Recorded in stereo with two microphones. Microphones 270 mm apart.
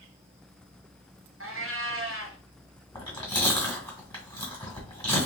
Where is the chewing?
20° left (ahead or behind), 1.8 m.